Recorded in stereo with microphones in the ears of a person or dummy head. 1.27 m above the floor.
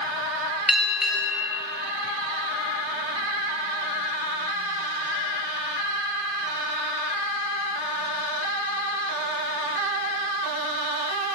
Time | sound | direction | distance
0.7 | a bell | 5° right (ahead or behind) | 4 m